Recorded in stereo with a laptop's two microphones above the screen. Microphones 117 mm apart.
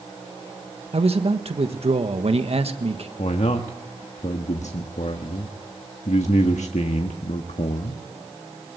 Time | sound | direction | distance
0.9 | a man speaking | 60° right (ahead or behind) | 1.4 m
3.2 | a man speaking | 80° left | 1.4 m